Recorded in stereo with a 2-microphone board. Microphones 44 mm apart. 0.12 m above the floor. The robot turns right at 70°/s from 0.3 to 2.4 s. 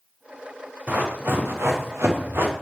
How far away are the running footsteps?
About 1.7 m.